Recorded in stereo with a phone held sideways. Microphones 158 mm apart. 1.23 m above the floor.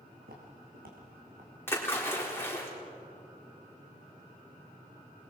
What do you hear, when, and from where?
0.2 s footsteps: 75° right (ahead or behind), 4 m; by 1.5 s 60° right (ahead or behind), 4.5 m
1.7 s a splash: 15° left (ahead or behind), 4 m